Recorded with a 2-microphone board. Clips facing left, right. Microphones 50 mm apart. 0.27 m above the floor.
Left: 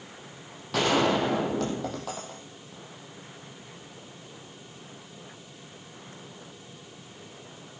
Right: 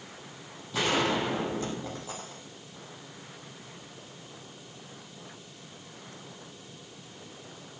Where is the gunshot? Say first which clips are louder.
Left 4 dB; 70° left (ahead or behind), 5.5 m.